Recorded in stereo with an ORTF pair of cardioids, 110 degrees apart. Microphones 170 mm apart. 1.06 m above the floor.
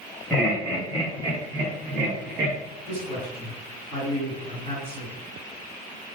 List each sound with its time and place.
0.3 s laughter: 5° right, 1.3 m; by 2.6 s 65° right, 1.1 m
2.9 s a man speaking: 65° right, 1.9 m